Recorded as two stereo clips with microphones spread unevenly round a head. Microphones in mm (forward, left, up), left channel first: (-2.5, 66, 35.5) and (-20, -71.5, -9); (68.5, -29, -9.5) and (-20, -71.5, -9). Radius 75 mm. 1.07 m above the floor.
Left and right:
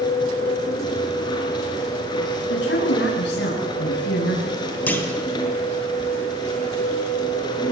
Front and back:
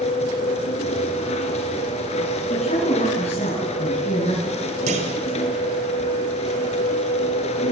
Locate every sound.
0.0 s a machine running: 25° left, 4.5 m
2.5 s a woman speaking: 70° left, 8.5 m
4.9 s a clunk: 165° left, 3.5 m